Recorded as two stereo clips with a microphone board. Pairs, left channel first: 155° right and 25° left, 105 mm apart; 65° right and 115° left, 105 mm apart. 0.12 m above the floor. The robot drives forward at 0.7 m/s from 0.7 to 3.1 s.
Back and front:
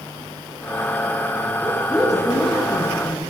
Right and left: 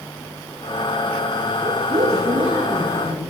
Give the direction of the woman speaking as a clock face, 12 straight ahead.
8 o'clock.